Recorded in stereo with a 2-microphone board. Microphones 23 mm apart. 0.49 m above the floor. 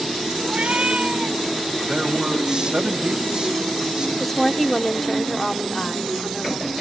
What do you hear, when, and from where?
0.5 s a cat meowing: 70° right (ahead or behind), 1.8 m
1.8 s a man speaking: 35° right (ahead or behind), 3.5 m
4.2 s a woman speaking: 10° left (ahead or behind), 1.0 m